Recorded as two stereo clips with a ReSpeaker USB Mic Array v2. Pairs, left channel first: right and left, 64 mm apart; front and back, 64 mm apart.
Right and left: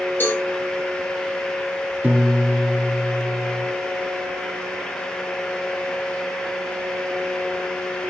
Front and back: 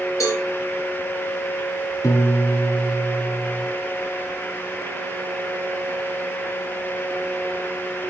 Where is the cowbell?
30° right, 9.5 m.